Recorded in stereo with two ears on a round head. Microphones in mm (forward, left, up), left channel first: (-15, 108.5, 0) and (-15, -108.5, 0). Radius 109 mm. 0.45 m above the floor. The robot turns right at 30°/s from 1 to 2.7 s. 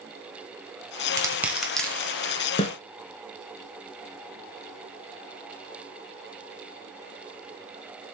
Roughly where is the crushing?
Centre.